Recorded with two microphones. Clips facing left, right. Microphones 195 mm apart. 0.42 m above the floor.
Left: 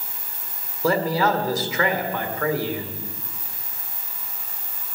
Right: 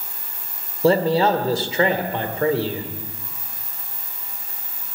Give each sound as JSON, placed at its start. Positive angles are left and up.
{"t": 0.8, "sound": "a man speaking", "side_deg": -30, "distance_m": 1.6}